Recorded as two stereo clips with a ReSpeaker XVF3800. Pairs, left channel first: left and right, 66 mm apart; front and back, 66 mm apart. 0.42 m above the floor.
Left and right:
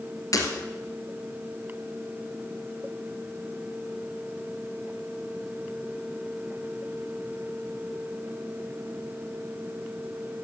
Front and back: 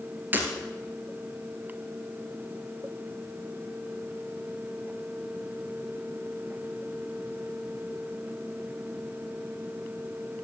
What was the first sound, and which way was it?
Breaking glass, 120° left.